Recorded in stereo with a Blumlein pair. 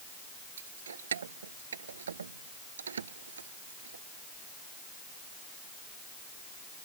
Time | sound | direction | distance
0.6 | keys jangling | 65° right | ?